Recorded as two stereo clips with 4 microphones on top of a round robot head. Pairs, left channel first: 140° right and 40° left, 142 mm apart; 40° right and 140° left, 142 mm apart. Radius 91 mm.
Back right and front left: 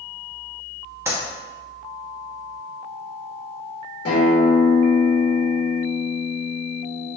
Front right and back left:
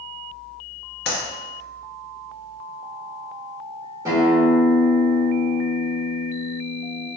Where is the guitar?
150° right, 1.6 m.